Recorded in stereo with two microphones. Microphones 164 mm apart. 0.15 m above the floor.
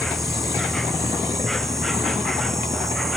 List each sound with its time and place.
0.0 s an insect: centre (ahead or behind)